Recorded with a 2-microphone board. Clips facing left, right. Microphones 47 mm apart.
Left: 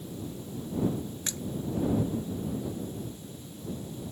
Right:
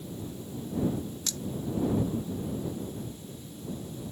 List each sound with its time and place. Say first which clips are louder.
1.3 s a splash: even; 25° left (ahead or behind)